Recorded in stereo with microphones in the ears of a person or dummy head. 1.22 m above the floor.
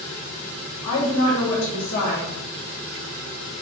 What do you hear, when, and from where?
0.8 s a woman speaking: 65° left (ahead or behind), 1.3 m